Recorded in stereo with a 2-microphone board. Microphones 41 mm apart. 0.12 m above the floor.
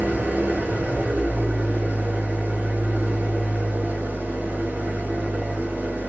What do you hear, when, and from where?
0.0 s an engine running: 45° right (ahead or behind), 0.7 m